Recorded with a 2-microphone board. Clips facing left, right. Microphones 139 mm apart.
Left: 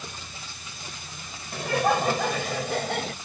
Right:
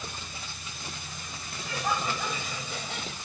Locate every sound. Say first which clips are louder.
1.5 s laughter: left 8 dB; 75° left (ahead or behind); by 3.1 s 70° left (ahead or behind)